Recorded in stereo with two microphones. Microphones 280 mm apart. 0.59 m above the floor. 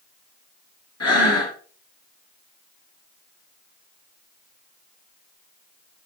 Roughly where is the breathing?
Left.